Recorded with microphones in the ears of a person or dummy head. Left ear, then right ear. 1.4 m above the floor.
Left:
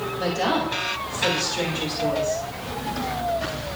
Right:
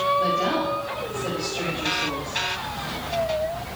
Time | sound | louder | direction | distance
0.2 | a woman speaking | right 1 dB | 70° left (ahead or behind) | 2.5 m